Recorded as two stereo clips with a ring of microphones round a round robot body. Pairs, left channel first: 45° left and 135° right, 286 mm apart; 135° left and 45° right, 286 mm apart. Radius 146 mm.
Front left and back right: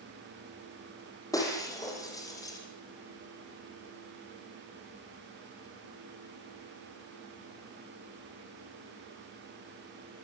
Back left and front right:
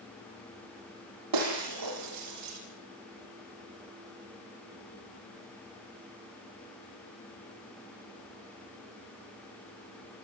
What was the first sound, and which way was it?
Breaking glass, 35° right.